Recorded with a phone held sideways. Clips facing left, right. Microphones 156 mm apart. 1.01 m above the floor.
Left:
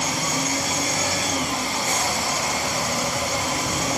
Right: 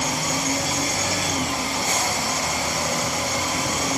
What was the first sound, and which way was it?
Only background noise.